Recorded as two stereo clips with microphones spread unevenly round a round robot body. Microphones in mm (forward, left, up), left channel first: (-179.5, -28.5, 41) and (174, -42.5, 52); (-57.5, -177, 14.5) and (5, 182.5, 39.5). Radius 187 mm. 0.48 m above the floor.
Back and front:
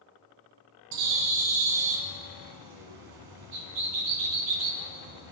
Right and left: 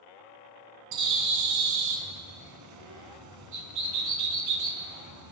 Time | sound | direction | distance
0.9 | a bird | 35° left | 1.9 m